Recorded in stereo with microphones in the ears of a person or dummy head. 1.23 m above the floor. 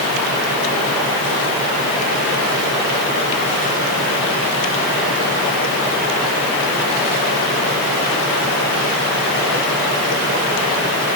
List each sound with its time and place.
Only background noise.